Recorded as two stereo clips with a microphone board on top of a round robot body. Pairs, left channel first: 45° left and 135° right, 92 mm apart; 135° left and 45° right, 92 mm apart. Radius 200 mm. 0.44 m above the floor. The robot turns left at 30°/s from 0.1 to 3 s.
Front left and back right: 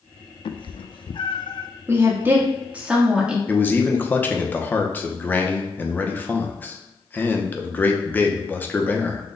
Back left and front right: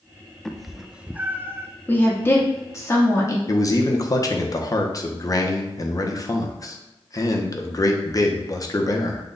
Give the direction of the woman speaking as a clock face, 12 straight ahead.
6 o'clock.